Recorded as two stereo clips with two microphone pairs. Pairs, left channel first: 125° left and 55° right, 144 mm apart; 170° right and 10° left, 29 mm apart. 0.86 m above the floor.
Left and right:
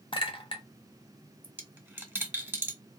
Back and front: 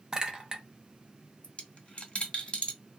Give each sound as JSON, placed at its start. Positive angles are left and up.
{"t": 0.1, "sound": "a clink", "azimuth_deg": 75, "distance_m": 0.6}
{"t": 1.4, "sound": "a dropped coin", "azimuth_deg": -130, "distance_m": 0.7}